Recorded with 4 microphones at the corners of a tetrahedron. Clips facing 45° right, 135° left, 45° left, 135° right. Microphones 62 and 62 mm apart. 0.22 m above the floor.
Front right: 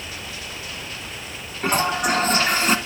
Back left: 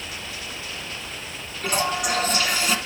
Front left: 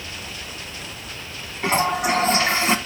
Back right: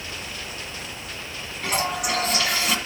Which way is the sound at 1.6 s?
5° right.